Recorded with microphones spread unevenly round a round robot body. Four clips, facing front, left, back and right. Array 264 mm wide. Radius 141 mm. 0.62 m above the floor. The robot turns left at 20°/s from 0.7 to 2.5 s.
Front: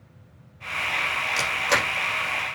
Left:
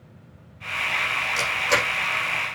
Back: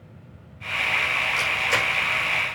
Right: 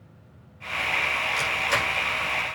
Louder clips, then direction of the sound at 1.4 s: Left 4 dB, front 3 dB; 30° left.